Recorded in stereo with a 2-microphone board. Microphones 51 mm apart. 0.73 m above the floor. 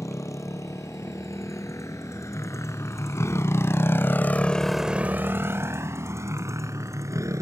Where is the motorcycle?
80° left; by 7.4 s 80° right.